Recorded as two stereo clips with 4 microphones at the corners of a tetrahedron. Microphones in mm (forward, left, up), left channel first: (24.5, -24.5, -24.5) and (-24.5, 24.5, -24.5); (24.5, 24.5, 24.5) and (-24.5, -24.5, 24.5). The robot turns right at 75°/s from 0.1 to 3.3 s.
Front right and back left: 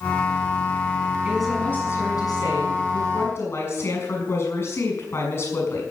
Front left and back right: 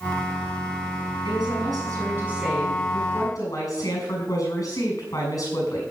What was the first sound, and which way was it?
A woman speaking, 150° right.